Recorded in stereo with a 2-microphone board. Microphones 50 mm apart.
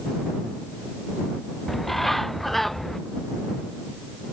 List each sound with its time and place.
1.7 s a bird: 5° left (ahead or behind)